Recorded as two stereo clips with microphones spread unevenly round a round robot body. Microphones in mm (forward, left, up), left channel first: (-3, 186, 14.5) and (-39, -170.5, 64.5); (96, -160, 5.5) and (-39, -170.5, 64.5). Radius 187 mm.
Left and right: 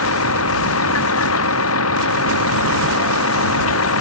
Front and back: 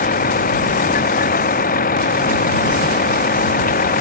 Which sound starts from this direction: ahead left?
A vehicle, at 0.0 s.